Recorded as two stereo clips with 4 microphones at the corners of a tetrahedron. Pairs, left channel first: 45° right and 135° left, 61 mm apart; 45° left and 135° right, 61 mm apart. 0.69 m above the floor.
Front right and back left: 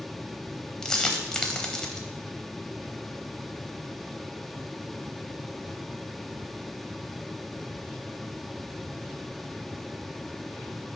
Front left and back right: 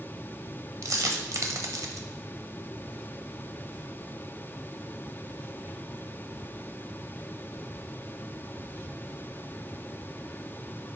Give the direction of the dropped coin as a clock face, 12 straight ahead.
4 o'clock.